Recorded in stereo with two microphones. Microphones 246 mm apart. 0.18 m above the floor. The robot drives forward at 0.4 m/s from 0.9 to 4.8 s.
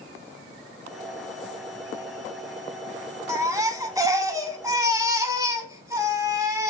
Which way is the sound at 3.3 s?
15° right (ahead or behind).